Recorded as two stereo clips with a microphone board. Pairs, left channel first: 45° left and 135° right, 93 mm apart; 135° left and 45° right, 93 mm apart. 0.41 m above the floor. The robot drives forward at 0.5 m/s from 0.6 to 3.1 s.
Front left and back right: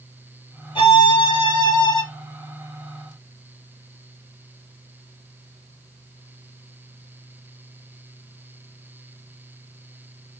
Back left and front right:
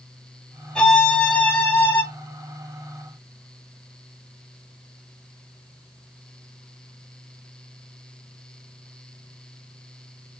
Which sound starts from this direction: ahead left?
A violin, at 0.8 s.